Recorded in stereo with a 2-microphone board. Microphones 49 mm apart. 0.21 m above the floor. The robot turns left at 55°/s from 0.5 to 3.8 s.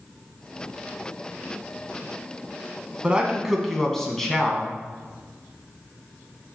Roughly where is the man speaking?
Behind right.